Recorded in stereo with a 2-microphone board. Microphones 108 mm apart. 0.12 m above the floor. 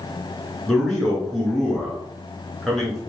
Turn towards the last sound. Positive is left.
turn(degrees=5)  # may be behind; listen again after turning